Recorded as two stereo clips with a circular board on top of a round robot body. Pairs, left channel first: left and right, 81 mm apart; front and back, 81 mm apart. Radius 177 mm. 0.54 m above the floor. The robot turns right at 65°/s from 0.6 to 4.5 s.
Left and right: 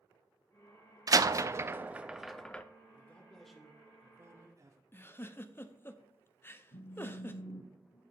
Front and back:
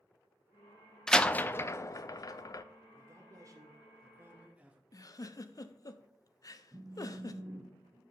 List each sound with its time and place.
1.1 s a door slam: 80° right, 0.6 m; by 2.6 s 20° left, 0.6 m
2.9 s a man speaking: 145° left, 0.9 m; by 4.8 s 115° right, 0.9 m
4.9 s a giggle: 30° left, 0.7 m
6.7 s a phone buzzing: 100° left, 0.9 m